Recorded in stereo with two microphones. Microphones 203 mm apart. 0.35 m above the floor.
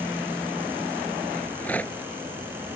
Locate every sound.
1.4 s a rattle: 5° left (ahead or behind)